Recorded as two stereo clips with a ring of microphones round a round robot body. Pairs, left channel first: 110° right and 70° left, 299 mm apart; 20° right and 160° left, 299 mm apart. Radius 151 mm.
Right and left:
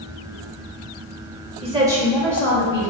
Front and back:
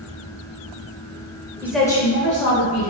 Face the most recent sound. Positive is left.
turn(degrees=-40)